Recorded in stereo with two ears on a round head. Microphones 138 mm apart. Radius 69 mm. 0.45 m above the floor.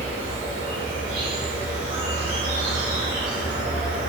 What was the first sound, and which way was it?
An insect, 60° right (ahead or behind).